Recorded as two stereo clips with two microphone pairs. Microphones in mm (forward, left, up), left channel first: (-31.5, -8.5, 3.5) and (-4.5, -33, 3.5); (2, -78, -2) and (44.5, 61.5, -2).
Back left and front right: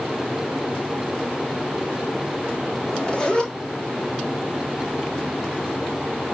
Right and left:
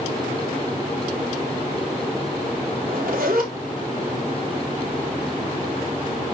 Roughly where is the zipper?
Left.